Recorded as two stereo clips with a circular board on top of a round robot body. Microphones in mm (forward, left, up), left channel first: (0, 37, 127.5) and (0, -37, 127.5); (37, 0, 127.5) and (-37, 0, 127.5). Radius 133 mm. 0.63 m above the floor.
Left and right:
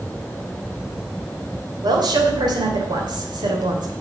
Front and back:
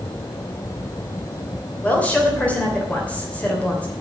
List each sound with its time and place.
1.8 s a woman speaking: 70° right, 3 m